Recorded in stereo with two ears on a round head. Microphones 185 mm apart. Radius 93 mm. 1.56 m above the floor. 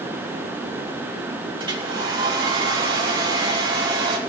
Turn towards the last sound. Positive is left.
turn(degrees=-25)  # may be behind; listen again after turning